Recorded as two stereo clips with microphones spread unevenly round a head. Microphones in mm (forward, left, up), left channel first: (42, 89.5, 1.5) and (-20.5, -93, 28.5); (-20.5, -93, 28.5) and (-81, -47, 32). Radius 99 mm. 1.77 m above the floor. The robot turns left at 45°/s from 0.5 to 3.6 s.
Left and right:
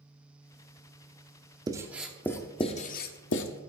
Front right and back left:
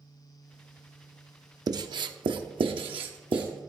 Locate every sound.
1.7 s writing: straight behind, 0.6 m; by 3.6 s 95° left, 0.6 m